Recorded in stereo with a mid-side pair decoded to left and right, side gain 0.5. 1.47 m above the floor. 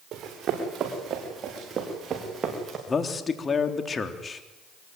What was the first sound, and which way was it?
Running footsteps, 55° right.